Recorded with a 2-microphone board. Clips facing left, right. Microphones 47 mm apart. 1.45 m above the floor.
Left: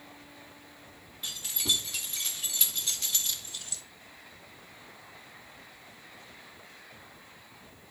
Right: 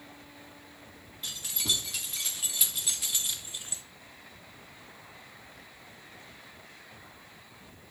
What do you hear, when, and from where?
1.2 s keys jangling: centre (ahead or behind), 2.5 m; by 3.8 s 30° right (ahead or behind), 0.6 m